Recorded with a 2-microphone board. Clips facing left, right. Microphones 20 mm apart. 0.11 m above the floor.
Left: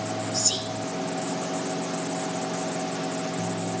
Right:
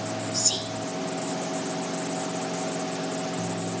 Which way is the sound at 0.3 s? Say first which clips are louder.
Even; 10° left (ahead or behind).